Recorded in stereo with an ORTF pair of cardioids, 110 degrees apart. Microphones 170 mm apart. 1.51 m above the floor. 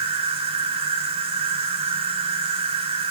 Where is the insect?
35° right, 3 m.